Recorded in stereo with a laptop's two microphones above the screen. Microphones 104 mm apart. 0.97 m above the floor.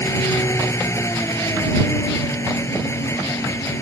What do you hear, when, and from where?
0.0 s an engine running: 25° left (ahead or behind)